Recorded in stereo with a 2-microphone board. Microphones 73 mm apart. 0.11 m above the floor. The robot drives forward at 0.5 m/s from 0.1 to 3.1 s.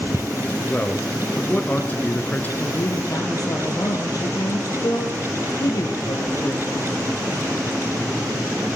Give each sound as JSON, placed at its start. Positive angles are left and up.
{"t": 0.7, "sound": "a man speaking", "side_deg": 25, "distance_m": 2.0}
{"t": 2.6, "sound": "a woman speaking", "side_deg": 55, "distance_m": 3.5}